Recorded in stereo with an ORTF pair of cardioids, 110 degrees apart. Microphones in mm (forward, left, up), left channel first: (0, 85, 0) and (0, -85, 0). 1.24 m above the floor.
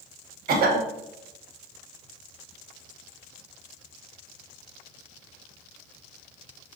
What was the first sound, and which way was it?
A cough, 60° right.